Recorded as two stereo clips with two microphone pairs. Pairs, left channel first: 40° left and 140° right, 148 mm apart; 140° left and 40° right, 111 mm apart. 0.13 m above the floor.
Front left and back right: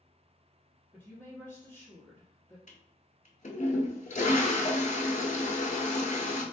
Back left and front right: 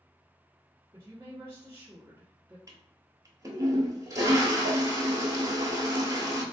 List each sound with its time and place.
0.9 s a woman speaking: 25° right, 1.6 m
2.7 s a toilet flushing: 15° left, 0.7 m